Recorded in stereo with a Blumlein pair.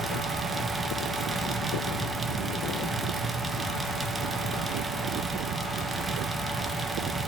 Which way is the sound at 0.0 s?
10° right.